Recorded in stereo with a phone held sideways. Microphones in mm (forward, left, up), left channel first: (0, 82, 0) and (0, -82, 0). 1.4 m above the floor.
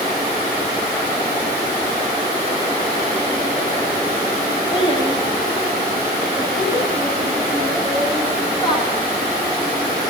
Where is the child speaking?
25° left (ahead or behind), 10 m.